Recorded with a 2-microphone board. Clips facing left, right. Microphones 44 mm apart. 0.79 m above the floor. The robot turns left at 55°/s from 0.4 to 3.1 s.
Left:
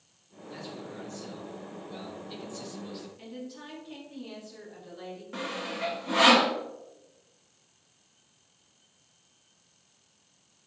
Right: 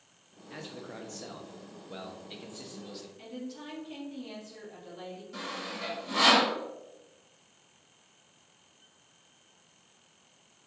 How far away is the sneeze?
No sneeze in this recording.